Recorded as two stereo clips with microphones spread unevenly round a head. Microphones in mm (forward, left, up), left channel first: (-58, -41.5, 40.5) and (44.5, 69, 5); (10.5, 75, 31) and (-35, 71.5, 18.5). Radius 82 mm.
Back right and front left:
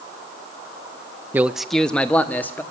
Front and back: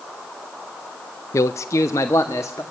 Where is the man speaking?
20° right, 0.6 m; by 2.6 s 50° right, 2 m.